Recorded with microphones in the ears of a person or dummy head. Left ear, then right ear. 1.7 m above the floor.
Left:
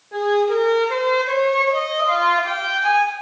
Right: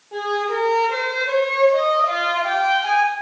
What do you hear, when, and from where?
0.1 s a flute: 5° left (ahead or behind), 0.8 m